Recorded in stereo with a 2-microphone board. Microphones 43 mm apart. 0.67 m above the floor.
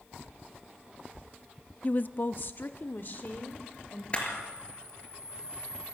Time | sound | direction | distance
1.8 | a woman speaking | 30° left (ahead or behind) | 0.5 m
4.1 | a camera shutter | 25° left (ahead or behind) | 4.5 m